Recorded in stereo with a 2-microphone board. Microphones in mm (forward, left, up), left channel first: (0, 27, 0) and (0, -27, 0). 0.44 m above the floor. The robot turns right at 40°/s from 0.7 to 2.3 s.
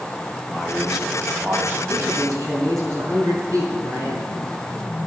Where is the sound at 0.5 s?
Straight behind, 2 m; by 1.8 s 140° right, 2 m.